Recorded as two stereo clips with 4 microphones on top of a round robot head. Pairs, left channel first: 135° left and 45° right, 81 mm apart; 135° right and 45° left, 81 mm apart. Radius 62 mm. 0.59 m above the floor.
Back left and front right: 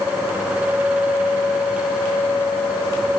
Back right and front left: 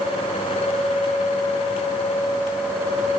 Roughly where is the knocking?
No knocking in this recording.